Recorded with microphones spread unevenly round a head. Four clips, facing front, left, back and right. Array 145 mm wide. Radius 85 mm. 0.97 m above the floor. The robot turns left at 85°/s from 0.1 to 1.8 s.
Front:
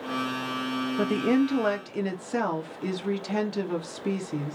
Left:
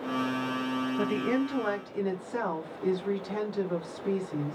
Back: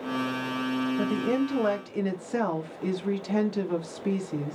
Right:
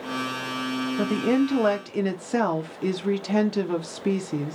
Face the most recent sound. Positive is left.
turn(degrees=-90)